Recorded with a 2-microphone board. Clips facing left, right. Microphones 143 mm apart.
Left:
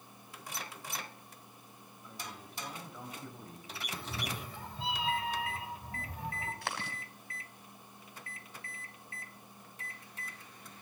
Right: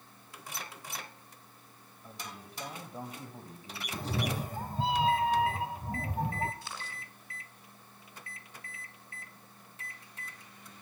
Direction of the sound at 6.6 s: 70° left (ahead or behind).